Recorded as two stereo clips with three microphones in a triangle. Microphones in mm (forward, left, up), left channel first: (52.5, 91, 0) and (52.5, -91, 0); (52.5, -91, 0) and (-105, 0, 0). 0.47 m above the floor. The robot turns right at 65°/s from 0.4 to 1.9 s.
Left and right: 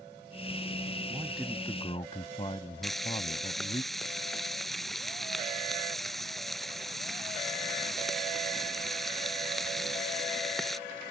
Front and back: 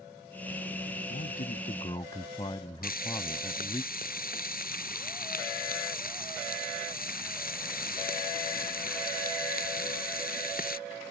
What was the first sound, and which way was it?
A man speaking, 20° right.